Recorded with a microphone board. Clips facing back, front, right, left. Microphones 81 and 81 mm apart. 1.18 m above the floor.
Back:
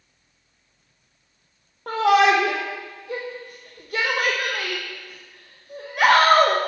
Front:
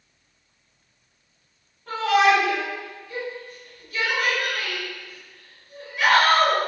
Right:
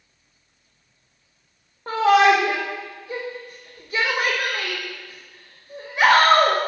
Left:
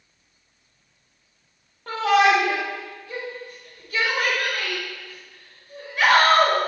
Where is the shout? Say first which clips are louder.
Back 2 dB, right 3 dB; 155° right, 1.1 m.